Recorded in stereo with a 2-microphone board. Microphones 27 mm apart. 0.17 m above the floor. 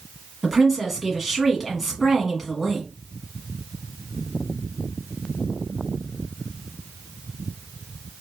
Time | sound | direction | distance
0.4 | a woman speaking | 5° right (ahead or behind) | 1.3 m